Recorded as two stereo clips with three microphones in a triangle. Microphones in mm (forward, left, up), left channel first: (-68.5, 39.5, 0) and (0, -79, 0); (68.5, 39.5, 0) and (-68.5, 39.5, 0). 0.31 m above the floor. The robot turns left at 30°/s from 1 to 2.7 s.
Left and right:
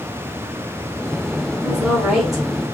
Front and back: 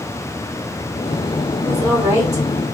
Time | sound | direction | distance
1.6 | a woman speaking | 125° right | 1.4 m